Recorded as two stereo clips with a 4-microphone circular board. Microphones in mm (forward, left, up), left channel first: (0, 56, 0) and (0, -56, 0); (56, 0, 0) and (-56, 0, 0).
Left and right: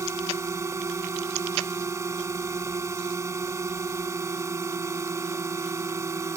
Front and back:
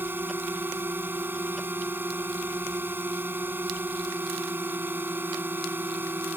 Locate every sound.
0.0 s a drone: 125° right